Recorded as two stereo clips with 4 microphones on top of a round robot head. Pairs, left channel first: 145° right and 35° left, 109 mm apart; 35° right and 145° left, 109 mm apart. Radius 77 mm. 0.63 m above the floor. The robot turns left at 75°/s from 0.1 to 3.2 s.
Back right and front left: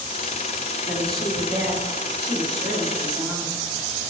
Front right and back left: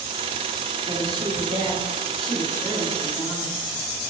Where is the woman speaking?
150° left, 1.3 m; by 3.6 s 25° right, 1.3 m.